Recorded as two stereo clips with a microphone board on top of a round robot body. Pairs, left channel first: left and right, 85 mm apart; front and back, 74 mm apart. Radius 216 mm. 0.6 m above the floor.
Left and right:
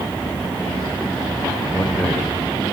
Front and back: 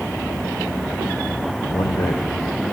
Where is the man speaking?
15° left, 2.5 m.